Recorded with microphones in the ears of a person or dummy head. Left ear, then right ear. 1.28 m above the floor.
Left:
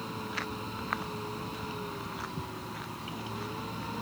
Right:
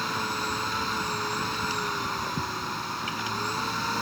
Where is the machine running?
65° right (ahead or behind).